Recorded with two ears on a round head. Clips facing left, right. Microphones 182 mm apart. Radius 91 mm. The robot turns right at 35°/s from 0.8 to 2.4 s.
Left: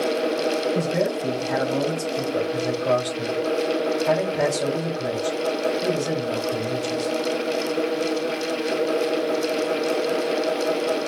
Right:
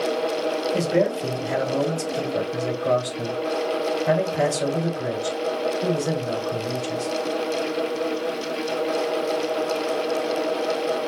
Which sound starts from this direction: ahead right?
A man speaking, at 0.7 s.